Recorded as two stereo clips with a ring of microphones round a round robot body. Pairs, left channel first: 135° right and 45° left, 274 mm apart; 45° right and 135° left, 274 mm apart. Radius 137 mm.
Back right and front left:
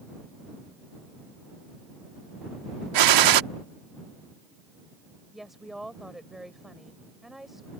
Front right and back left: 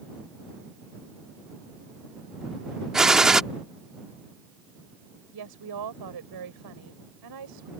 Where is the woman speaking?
135° left.